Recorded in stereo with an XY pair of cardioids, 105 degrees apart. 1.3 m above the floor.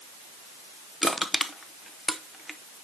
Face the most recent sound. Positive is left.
turn(degrees=5)